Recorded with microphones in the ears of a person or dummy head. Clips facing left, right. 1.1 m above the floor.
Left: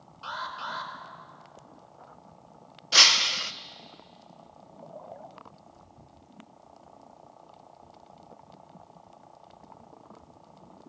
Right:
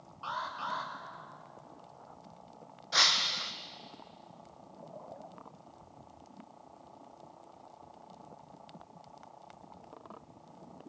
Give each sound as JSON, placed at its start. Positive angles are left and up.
{"t": 0.2, "sound": "an alarm", "side_deg": 25, "distance_m": 5.5}
{"t": 2.9, "sound": "breaking glass", "side_deg": 40, "distance_m": 0.8}